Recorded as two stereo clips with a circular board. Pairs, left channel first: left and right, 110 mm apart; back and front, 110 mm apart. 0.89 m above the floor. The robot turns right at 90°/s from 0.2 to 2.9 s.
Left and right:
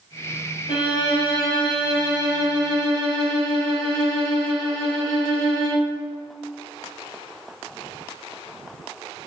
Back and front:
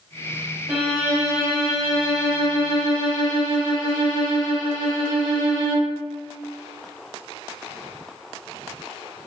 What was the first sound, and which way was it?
A violin, 75° left.